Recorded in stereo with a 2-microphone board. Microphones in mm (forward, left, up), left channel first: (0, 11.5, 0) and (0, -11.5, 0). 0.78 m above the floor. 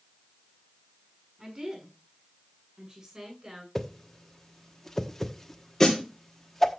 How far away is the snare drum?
About 2.5 m.